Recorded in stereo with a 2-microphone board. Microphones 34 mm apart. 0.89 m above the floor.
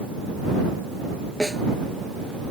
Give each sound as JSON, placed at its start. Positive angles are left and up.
{"t": 1.4, "sound": "a snare drum", "side_deg": 15}